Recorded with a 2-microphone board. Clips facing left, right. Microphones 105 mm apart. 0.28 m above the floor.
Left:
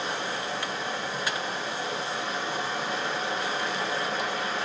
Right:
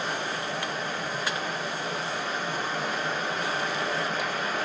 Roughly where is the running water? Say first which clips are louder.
Even; right.